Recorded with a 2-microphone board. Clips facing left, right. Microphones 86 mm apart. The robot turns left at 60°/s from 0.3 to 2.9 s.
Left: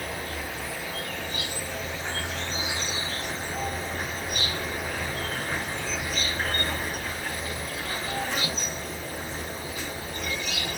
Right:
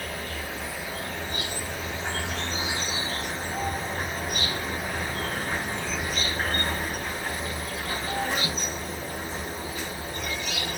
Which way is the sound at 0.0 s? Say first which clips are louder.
Left 1 dB; 20° left.